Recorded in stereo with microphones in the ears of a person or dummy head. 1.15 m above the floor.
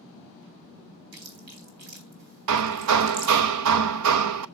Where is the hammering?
70° right (ahead or behind), 0.7 m.